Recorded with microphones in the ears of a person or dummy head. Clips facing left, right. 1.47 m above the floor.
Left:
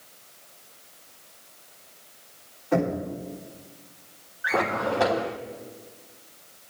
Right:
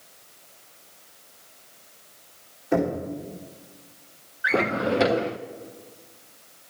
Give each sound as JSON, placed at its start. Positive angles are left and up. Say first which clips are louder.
{"t": 2.7, "sound": "knocking", "louder": "right 1 dB", "side_deg": -15, "distance_m": 4.0}
{"t": 4.4, "sound": "a drawer", "louder": "right 2 dB", "side_deg": -20, "distance_m": 0.5}